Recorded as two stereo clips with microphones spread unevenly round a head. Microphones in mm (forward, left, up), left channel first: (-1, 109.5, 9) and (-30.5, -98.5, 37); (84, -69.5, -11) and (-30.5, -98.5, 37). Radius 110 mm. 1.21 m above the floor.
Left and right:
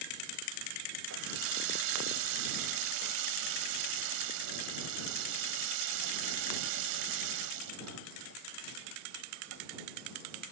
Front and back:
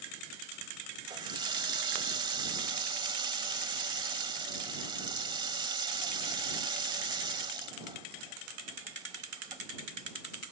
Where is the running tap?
120° right.